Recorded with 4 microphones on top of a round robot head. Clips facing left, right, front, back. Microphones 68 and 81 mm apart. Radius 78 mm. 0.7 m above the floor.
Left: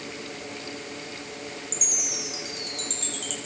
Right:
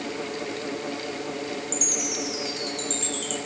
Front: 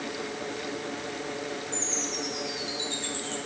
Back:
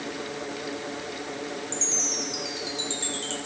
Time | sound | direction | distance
1.7 | a chime | straight behind | 6 m